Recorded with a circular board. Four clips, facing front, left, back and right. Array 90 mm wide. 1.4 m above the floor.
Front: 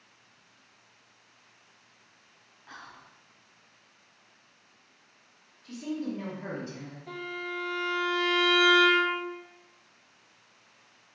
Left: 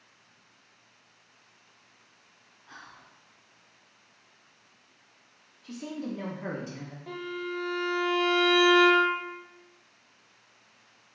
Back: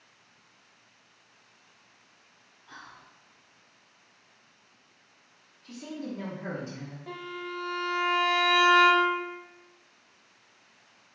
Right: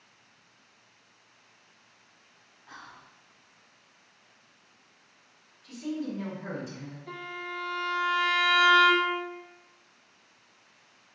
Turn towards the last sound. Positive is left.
turn(degrees=145)